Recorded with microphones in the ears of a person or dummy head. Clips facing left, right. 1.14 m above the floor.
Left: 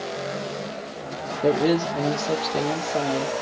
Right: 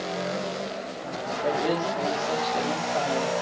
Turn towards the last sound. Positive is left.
turn(degrees=35)  # may be behind; listen again after turning